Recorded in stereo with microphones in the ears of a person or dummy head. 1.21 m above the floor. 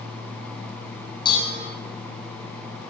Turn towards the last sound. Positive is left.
turn(degrees=25)  # may be behind; listen again after turning